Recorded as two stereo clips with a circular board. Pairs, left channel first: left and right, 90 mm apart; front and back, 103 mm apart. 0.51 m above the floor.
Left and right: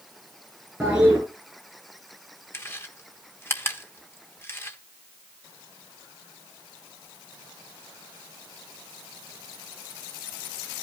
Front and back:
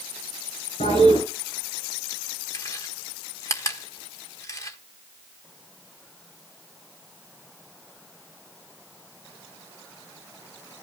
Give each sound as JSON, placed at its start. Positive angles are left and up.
{"t": 0.8, "sound": "a toilet flushing", "azimuth_deg": -5, "distance_m": 8.5}
{"t": 2.5, "sound": "chewing", "azimuth_deg": 40, "distance_m": 1.1}